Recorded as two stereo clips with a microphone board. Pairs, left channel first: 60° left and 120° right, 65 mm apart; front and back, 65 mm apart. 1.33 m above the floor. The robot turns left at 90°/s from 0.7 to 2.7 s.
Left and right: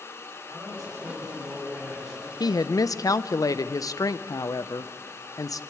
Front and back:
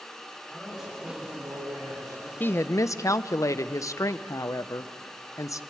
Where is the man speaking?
85° right, 7.5 m; by 2.3 s 130° left, 7.5 m.